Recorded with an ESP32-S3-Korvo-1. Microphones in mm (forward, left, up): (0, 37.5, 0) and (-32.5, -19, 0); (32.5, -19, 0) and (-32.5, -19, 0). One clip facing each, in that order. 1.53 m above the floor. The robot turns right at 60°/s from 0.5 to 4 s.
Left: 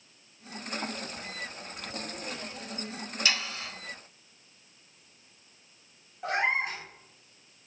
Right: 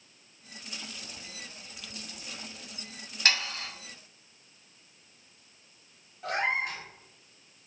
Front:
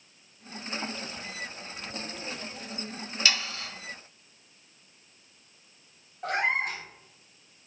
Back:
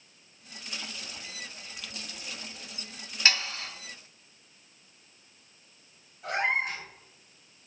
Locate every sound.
3.2 s sawing: 130° right, 1.3 m; by 3.7 s 105° right, 1.3 m
6.2 s a cat meowing: straight ahead, 1.2 m